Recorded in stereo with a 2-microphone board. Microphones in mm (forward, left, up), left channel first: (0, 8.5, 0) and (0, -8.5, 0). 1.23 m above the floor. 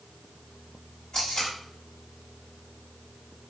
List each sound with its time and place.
1.1 s tape being pulled: 65° left (ahead or behind), 2.0 m